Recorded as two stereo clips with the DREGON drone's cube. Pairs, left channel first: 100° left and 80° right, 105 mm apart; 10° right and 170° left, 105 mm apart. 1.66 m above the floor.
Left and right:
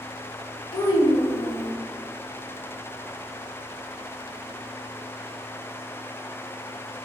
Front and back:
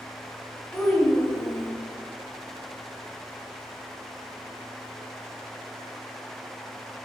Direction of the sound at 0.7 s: 70° left.